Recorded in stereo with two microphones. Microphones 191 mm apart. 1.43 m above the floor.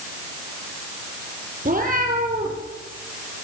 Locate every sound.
1.6 s a cat meowing: 45° right (ahead or behind), 5 m